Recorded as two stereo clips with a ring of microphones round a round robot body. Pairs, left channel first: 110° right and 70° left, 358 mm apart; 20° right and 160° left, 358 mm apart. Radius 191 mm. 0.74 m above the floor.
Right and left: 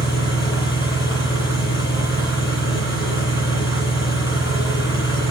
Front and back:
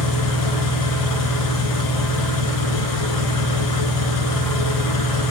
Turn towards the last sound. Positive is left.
turn(degrees=-35)